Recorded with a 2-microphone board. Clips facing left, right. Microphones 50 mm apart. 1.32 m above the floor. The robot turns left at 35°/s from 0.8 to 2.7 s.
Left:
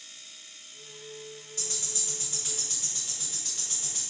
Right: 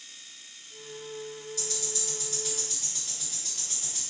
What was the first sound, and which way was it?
Ticking, 40° left (ahead or behind).